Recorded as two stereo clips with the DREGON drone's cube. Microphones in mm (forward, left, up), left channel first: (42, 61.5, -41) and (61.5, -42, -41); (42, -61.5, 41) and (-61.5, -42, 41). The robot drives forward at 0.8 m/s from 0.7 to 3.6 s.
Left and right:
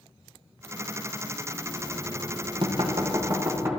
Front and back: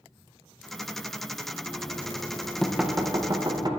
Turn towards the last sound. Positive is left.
turn(degrees=-145)